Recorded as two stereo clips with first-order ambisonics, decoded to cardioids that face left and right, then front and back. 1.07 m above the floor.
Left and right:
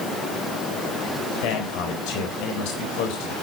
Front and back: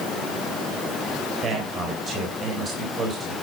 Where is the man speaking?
110° left, 4 m.